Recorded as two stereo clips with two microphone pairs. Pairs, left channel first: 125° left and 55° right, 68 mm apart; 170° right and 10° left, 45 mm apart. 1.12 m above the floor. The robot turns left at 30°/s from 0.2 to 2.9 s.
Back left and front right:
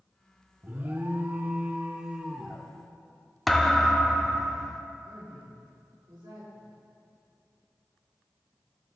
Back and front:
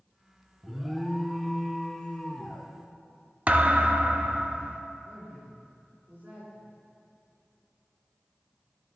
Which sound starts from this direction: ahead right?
A woman speaking, at 5.0 s.